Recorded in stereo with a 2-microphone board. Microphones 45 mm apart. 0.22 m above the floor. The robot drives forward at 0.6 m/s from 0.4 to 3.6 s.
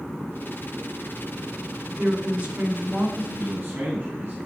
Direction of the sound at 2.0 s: 45° right (ahead or behind).